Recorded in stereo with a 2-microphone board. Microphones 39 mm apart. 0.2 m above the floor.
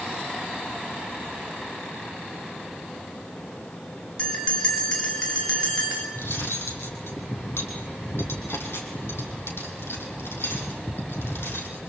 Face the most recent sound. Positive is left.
turn(degrees=80)